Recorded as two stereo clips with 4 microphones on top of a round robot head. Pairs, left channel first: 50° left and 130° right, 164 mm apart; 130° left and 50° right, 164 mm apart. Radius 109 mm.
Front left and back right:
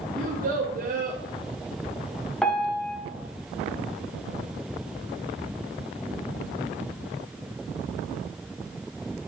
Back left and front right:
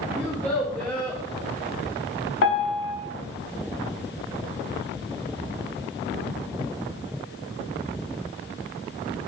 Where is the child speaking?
150° right, 0.6 m.